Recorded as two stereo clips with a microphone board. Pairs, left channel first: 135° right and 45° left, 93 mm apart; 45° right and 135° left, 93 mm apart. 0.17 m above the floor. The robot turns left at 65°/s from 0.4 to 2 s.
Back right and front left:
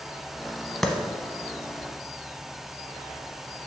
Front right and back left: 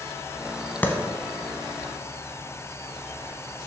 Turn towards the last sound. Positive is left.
turn(degrees=-130)